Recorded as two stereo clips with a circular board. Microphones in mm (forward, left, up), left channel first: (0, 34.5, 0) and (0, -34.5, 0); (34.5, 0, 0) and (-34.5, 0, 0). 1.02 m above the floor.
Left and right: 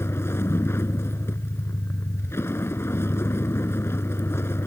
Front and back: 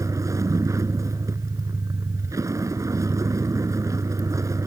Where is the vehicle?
140° left.